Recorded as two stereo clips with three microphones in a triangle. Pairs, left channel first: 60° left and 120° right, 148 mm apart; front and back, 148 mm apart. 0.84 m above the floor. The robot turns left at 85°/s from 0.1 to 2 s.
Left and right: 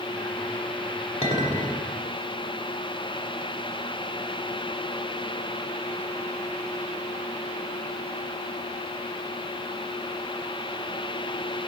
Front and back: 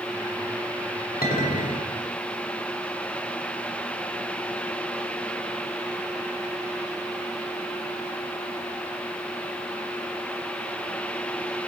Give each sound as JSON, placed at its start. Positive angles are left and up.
{"t": 1.2, "sound": "a clink", "azimuth_deg": 15, "distance_m": 1.3}